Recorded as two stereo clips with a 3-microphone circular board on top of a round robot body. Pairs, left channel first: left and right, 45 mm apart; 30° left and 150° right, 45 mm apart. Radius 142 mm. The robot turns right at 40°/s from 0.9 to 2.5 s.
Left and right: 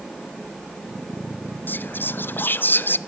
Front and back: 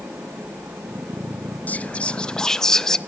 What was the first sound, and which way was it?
Whispering, 70° left.